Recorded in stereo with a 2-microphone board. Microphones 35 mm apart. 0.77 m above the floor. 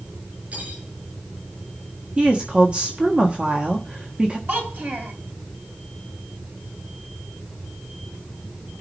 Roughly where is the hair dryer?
No hair dryer in this recording.